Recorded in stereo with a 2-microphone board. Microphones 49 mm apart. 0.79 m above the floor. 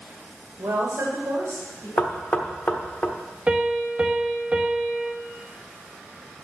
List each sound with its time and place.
0.6 s a woman speaking: 70° right (ahead or behind), 2.5 m; by 1.9 s 75° right (ahead or behind), 3.5 m
2.0 s knocking: 30° left (ahead or behind), 1.1 m
3.5 s a piano: 25° right (ahead or behind), 1.1 m